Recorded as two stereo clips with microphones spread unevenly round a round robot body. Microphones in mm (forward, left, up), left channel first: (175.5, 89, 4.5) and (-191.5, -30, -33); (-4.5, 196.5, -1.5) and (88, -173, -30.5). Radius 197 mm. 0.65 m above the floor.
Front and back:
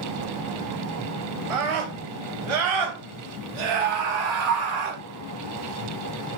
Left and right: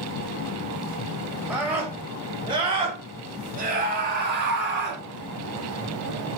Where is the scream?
165° right, 3.5 m; by 5.0 s 140° right, 4.5 m.